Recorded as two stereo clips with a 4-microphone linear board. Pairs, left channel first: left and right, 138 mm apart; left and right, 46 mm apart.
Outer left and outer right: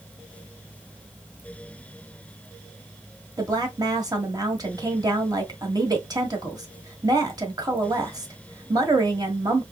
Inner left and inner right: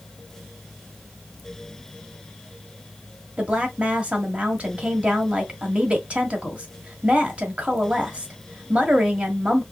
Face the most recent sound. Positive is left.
turn(degrees=-30)  # may be behind; listen again after turning